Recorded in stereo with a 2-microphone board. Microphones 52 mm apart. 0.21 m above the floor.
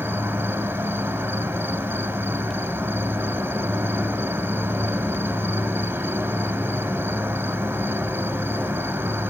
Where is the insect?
50° right (ahead or behind), 0.9 m.